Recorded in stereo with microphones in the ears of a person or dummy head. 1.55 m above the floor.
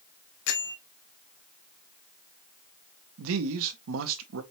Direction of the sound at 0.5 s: 70° left (ahead or behind).